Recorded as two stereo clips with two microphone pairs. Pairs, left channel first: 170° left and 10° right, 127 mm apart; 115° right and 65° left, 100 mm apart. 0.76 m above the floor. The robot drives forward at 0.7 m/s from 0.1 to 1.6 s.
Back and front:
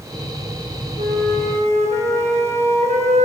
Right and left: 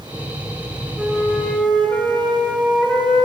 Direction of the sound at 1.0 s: 20° right.